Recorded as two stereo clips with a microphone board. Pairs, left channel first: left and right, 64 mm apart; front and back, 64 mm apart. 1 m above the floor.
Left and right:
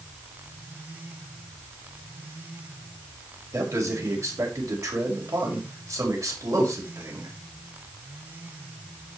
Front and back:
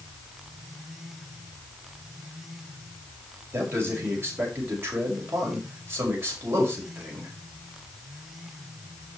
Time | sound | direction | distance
3.5 | a man speaking | 130° right | 5.5 m